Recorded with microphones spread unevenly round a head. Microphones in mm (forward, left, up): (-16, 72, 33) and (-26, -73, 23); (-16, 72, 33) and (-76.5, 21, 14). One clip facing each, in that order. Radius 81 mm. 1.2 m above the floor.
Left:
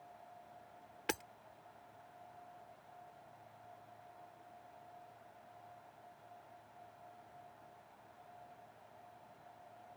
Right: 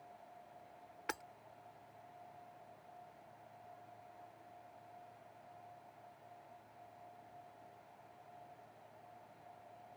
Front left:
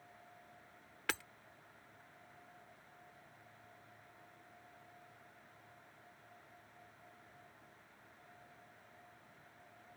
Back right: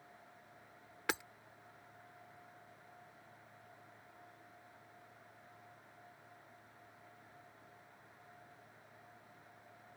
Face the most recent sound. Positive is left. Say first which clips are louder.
# left 4 dB, back right 2 dB
turn(degrees=145)